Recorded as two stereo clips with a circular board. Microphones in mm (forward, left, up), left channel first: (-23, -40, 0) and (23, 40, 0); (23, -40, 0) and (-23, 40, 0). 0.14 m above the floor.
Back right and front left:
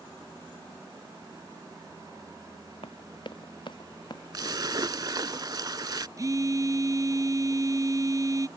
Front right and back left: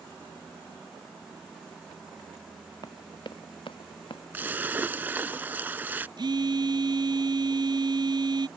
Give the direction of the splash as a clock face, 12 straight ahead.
10 o'clock.